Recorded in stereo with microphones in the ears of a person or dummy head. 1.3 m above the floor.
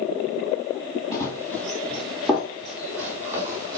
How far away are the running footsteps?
About 2 m.